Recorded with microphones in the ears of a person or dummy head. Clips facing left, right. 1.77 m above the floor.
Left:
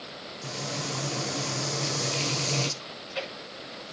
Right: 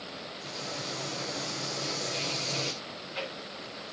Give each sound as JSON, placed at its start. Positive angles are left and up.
{"t": 0.4, "sound": "frying", "side_deg": 75, "distance_m": 1.5}
{"t": 2.8, "sound": "chewing", "side_deg": 75, "distance_m": 7.5}